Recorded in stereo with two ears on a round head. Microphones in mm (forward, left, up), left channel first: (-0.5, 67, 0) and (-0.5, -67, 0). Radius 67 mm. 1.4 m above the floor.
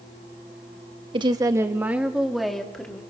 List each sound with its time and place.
1.1 s a woman speaking: 35° right (ahead or behind), 1.4 m; by 3.0 s 5° left (ahead or behind), 3 m